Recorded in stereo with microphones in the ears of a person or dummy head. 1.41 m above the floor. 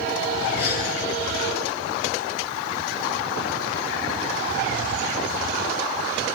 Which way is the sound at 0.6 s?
65° left (ahead or behind).